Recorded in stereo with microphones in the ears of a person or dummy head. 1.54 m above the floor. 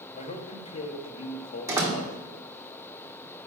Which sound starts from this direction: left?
A man speaking, at 0.1 s.